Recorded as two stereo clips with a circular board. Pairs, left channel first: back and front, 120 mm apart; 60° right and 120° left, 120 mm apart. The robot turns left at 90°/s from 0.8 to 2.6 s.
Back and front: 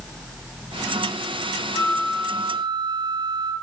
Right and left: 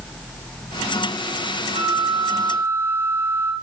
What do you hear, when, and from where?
1.7 s a flute: 125° left, 3.5 m; by 3.5 s 50° left, 3.5 m